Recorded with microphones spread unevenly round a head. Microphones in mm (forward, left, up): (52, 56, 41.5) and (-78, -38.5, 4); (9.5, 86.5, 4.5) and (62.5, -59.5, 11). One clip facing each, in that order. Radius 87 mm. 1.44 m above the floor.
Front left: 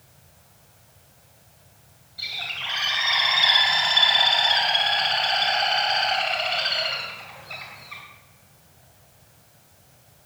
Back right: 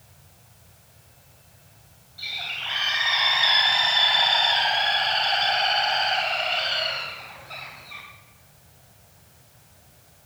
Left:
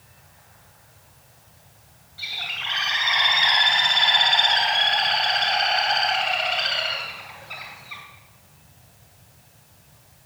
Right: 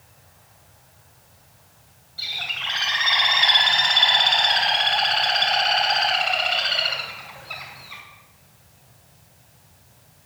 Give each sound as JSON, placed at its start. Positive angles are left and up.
{"t": 2.2, "sound": "a bird", "azimuth_deg": -30, "distance_m": 3.0}